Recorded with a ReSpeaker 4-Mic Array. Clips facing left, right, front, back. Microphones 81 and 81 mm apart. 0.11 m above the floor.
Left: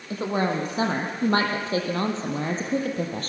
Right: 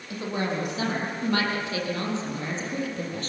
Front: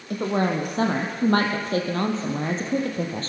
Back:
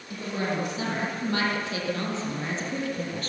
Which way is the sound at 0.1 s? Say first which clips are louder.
Left 4 dB, front 6 dB; 35° left.